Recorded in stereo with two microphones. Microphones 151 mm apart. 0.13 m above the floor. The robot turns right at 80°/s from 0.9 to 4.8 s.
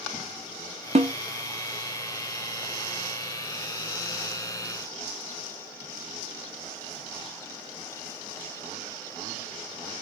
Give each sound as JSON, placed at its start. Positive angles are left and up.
{"t": 0.9, "sound": "a snare drum", "side_deg": -50, "distance_m": 0.7}